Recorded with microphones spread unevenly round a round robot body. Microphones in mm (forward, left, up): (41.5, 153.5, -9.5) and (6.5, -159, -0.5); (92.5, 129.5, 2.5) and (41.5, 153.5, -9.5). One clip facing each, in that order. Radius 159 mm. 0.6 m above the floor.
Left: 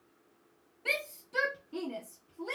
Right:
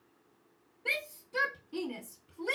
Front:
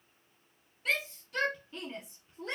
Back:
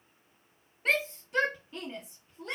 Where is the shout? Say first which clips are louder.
Left 3 dB, back 4 dB; 145° left, 0.8 m; by 2.5 s 80° right, 0.7 m.